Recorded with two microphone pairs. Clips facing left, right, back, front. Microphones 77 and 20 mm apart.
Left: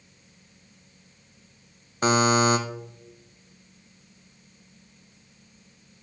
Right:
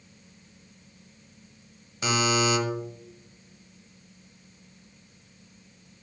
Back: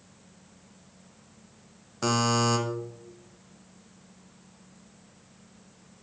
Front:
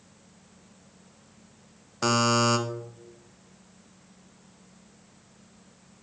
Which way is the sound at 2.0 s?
70° left.